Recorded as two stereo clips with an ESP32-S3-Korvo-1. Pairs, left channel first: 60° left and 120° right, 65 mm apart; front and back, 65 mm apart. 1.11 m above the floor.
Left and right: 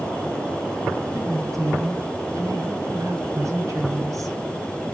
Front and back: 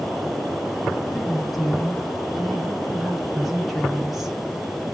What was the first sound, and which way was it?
A woman speaking, 90° right.